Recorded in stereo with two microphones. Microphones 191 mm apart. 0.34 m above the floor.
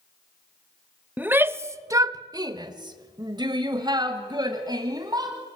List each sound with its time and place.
1.2 s a shout: 10° right (ahead or behind), 0.9 m; by 5.4 s 20° right (ahead or behind), 2 m